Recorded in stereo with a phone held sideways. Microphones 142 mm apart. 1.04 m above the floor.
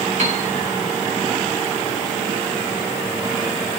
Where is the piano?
60° right (ahead or behind), 3 m.